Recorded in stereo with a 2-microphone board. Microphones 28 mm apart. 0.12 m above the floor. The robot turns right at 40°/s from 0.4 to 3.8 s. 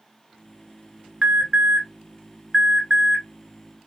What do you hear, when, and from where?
1.2 s an alarm: 35° right (ahead or behind), 1.4 m; by 3.2 s 10° right (ahead or behind), 1.4 m